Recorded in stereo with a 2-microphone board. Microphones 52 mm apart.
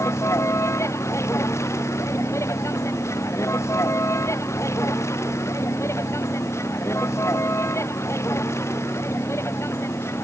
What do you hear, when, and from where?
0.0 s a vehicle: 80° left; by 10.2 s 65° left (ahead or behind)